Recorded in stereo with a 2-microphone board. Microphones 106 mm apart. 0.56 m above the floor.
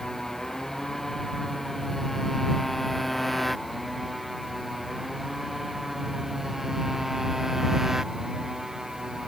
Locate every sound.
0.0 s a motorcycle: 5° left (ahead or behind); by 9.3 s 5° right (ahead or behind)